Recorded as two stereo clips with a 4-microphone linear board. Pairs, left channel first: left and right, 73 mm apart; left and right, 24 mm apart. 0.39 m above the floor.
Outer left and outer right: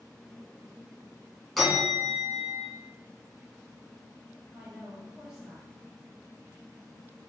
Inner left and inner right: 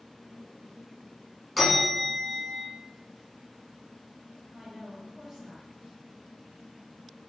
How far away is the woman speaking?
About 1.9 m.